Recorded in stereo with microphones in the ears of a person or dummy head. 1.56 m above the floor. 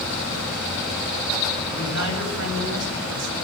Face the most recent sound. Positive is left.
turn(degrees=-70)  # may be behind; listen again after turning